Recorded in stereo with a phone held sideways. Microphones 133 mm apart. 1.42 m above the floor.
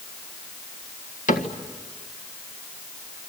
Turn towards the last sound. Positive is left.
turn(degrees=75)  # may be behind; listen again after turning